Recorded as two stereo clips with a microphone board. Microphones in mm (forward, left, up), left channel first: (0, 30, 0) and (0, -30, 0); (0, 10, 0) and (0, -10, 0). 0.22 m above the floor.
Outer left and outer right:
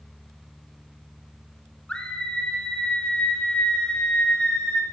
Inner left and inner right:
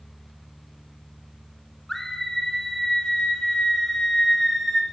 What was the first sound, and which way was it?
A scream, 15° left (ahead or behind).